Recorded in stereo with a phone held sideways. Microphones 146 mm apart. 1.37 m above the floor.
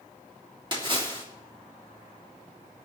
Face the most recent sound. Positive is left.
turn(degrees=-35)  # may be behind; listen again after turning